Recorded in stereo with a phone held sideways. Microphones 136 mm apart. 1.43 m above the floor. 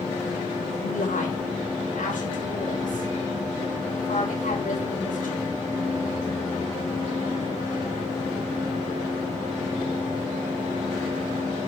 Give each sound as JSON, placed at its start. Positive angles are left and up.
{"t": 0.8, "sound": "a woman speaking", "side_deg": 90, "distance_m": 6.5}